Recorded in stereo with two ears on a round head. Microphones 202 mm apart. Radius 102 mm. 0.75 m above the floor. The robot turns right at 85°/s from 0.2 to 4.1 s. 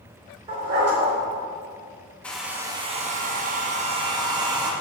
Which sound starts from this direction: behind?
A hair dryer, at 2.2 s.